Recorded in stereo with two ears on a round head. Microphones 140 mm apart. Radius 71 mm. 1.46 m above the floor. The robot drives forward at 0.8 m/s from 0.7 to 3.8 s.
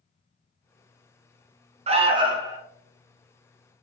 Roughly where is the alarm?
Right.